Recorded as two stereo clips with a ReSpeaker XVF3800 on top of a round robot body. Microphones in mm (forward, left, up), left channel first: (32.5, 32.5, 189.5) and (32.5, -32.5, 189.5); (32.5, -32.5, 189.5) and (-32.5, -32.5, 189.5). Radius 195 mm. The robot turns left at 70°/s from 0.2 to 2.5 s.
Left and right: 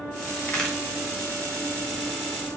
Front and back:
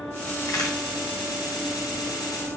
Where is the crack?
30° left, 0.8 m; by 0.8 s 5° left, 0.8 m.